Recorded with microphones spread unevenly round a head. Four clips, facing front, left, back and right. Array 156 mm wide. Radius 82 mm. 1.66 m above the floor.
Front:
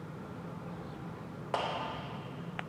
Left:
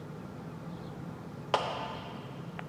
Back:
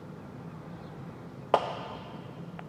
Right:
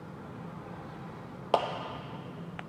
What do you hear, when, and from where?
1.5 s a clap: 150° right, 0.6 m